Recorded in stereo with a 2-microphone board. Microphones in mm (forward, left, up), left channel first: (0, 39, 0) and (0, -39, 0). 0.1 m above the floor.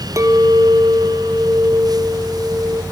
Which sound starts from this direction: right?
A clink, at 0.2 s.